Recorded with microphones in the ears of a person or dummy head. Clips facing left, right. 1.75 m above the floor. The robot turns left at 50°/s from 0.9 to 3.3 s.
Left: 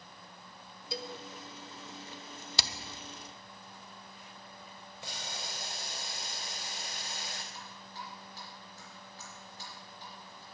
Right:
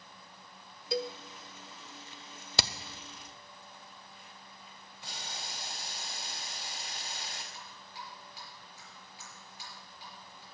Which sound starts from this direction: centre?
Dripping, at 7.5 s.